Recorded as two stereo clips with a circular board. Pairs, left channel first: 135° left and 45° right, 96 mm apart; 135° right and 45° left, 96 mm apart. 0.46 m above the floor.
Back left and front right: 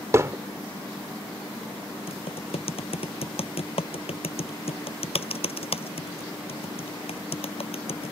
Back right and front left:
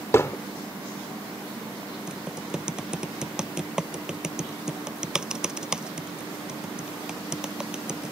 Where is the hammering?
85° right.